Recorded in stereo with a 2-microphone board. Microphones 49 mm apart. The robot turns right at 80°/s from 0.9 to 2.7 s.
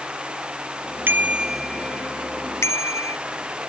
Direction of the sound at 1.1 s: 45° right (ahead or behind).